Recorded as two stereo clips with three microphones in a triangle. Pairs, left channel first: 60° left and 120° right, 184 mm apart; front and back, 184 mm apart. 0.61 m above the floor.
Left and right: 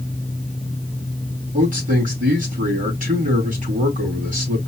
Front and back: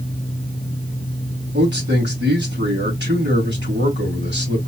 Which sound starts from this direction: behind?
A man speaking, at 1.5 s.